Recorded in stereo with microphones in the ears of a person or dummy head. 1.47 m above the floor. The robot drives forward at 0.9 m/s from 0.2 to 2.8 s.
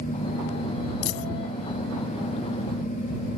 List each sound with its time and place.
1.0 s a dropped coin: 75° left (ahead or behind)